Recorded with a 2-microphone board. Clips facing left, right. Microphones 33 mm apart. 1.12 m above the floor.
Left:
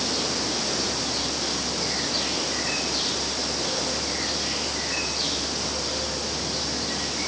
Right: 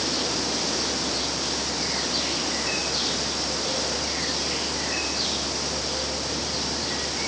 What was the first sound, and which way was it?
Only background noise.